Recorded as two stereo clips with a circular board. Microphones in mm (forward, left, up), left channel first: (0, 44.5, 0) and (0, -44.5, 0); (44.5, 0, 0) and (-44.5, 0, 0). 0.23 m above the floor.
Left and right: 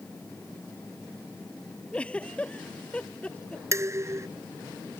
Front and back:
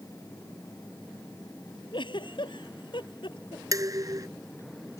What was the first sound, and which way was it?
A giggle, 15° left.